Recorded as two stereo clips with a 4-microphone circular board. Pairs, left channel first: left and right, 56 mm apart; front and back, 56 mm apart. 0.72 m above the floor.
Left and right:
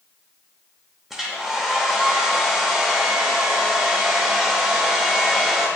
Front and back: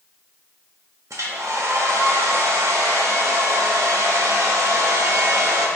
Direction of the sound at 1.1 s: 175° right.